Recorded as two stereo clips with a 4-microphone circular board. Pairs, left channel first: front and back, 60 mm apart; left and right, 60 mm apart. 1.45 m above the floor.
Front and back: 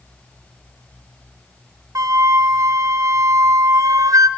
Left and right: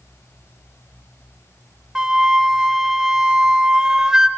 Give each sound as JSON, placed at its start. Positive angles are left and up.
{"t": 1.9, "sound": "a flute", "azimuth_deg": -170, "distance_m": 0.5}